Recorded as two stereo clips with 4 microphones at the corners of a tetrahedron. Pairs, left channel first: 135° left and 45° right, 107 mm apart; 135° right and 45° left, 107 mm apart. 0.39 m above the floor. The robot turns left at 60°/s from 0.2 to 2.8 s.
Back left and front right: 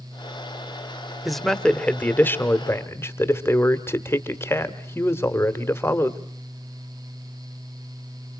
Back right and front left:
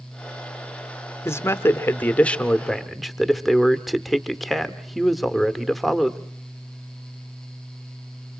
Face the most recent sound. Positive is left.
turn(degrees=135)